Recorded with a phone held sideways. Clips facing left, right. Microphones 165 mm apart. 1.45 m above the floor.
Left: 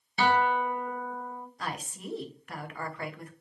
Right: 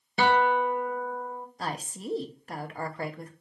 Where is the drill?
I don't hear a drill.